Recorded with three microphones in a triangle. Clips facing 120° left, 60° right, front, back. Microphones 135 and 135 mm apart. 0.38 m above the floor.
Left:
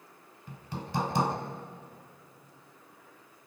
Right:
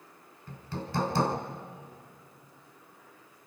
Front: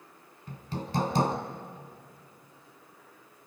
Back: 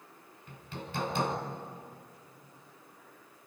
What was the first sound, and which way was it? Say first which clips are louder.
Hammering: right 1 dB, front 7 dB; 50° left.